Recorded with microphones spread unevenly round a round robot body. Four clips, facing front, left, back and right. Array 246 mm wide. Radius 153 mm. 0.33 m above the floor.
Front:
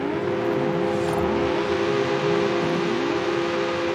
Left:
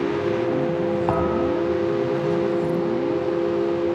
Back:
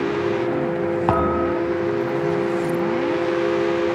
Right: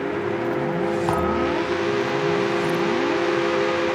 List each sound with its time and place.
1.1 s a thud: 165° right, 2.5 m